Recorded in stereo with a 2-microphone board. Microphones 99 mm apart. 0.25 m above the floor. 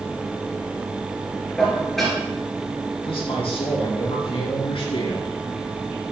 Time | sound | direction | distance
1.6 | dishes clattering | 5° left (ahead or behind) | 2.5 m
3.0 | a man speaking | 70° left (ahead or behind) | 3 m